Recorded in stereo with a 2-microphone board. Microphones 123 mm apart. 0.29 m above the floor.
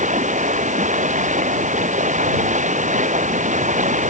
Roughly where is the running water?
Right.